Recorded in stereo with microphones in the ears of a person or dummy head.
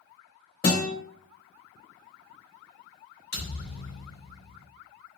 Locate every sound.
0.6 s a guitar: 50° left (ahead or behind), 0.9 m
3.3 s a thud: 50° left (ahead or behind), 1.6 m